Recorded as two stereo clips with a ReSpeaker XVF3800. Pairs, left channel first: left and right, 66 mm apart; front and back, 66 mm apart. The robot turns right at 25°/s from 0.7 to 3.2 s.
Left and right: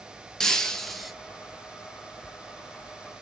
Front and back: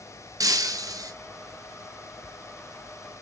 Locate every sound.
0.4 s breaking glass: 170° left, 0.6 m; by 1.1 s straight behind, 0.6 m